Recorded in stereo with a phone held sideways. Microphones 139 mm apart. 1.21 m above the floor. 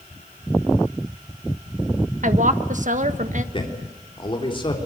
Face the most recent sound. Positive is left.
turn(degrees=40)  # may be behind; listen again after turning